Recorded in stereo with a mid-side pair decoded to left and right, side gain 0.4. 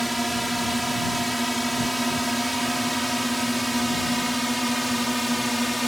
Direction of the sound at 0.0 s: 5° right.